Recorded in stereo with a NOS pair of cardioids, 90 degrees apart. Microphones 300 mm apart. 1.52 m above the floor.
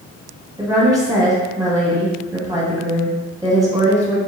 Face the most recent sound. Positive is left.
turn(degrees=-10)